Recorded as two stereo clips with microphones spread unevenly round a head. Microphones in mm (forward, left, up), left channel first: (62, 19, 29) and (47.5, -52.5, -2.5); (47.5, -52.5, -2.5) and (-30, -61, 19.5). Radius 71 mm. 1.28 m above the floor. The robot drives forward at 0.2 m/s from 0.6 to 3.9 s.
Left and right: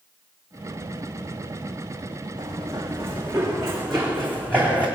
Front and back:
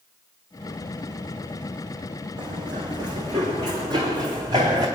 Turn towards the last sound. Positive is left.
turn(degrees=140)